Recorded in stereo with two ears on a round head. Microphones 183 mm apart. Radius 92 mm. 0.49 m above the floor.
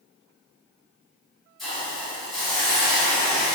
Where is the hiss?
Centre (ahead or behind), 1.4 m.